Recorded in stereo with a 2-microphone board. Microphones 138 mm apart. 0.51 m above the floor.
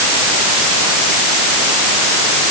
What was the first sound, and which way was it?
Only background noise.